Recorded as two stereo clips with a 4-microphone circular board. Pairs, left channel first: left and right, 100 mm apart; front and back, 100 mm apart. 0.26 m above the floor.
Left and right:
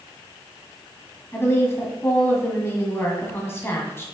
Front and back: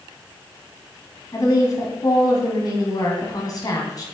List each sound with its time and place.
1.3 s a woman speaking: 35° left, 1.9 m